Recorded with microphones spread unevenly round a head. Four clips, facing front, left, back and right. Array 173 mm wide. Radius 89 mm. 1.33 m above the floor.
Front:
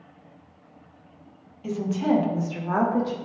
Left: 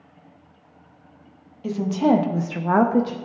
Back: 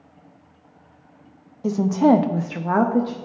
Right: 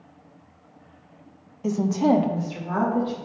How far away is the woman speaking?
About 0.6 m.